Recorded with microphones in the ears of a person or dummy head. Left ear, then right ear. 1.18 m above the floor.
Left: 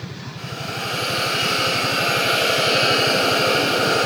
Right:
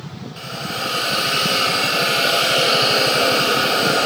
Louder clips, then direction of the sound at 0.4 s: Right 3 dB; 40° right (ahead or behind).